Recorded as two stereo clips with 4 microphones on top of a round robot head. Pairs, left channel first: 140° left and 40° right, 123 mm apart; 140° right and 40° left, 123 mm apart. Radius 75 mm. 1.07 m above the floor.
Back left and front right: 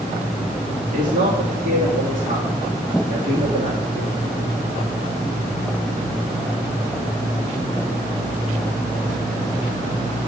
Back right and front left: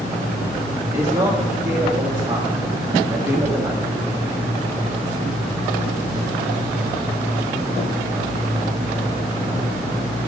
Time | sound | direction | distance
0.9 | a man speaking | 35° right | 2 m